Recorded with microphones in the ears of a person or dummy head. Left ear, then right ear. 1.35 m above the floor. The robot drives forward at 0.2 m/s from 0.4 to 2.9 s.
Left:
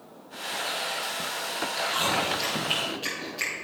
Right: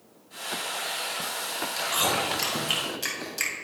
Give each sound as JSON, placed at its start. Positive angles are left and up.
{"t": 1.8, "sound": "chewing", "side_deg": -50, "distance_m": 2.0}